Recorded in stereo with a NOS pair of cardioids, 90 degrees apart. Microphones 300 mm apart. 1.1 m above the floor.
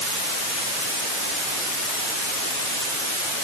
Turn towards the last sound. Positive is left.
No sound to turn to.